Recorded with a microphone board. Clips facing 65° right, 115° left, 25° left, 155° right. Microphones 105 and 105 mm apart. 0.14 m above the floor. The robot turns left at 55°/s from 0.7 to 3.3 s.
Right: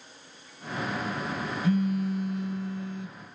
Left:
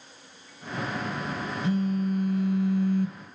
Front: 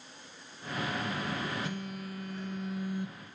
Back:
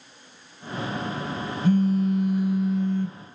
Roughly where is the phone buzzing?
Behind.